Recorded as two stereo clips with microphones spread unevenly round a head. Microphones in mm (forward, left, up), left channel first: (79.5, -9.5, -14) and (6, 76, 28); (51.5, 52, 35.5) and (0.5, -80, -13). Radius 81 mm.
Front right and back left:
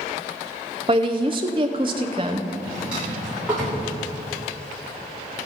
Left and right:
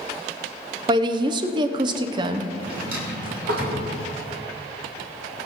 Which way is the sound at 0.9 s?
165° right.